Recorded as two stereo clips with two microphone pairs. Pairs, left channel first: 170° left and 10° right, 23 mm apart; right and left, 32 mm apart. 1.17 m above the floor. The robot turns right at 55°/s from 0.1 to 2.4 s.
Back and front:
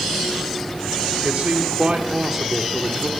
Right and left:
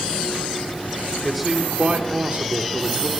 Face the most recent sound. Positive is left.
turn(degrees=60)